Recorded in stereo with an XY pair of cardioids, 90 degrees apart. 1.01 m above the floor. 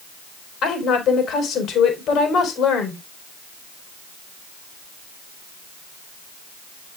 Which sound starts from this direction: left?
A woman speaking, at 0.6 s.